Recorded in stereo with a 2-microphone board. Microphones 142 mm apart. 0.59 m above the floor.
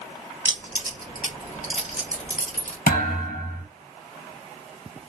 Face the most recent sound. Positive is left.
turn(degrees=85)